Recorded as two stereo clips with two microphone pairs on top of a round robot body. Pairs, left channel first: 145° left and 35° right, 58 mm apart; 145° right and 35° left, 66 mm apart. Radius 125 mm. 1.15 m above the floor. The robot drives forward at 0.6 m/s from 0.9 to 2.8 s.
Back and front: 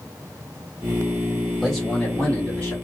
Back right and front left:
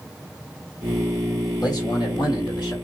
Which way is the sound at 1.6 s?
125° right.